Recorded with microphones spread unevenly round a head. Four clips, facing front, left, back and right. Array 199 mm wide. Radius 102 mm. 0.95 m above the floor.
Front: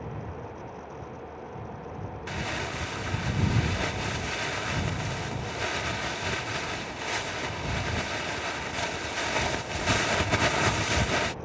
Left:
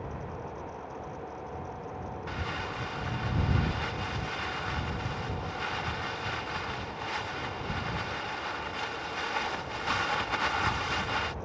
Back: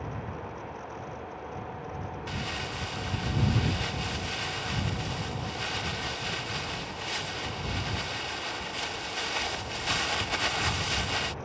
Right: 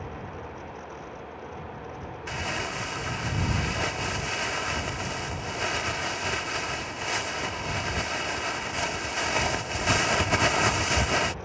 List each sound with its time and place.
2.3 s crumpling: 50° right